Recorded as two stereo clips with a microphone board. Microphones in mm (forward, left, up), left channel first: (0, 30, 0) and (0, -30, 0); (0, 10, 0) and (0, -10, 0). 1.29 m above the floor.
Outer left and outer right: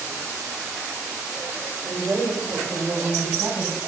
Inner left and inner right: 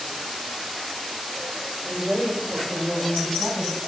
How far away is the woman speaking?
About 7 m.